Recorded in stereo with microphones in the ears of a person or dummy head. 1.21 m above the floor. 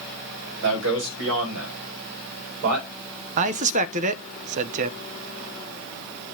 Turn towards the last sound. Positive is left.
turn(degrees=-35)  # may be behind; listen again after turning